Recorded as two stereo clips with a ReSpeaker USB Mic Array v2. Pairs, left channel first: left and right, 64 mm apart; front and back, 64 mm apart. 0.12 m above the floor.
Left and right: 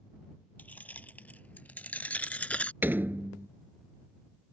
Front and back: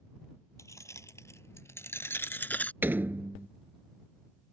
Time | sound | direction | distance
0.6 | keys jangling | 30° left | ?
2.8 | a door slam | 135° right | ?